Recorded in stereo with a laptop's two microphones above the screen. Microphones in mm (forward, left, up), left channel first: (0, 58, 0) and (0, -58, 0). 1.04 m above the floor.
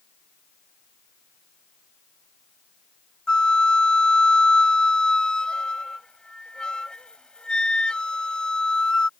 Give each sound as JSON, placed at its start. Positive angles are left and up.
{"t": 3.3, "sound": "a flute", "side_deg": 5}